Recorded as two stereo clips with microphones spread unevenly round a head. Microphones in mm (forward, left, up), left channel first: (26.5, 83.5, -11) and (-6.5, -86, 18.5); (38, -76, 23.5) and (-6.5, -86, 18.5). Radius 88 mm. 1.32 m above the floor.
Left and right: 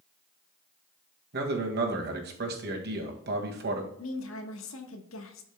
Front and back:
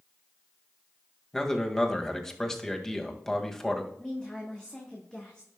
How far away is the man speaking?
About 2 m.